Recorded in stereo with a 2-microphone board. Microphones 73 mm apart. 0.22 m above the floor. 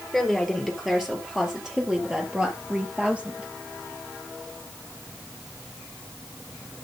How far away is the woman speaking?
About 4.5 m.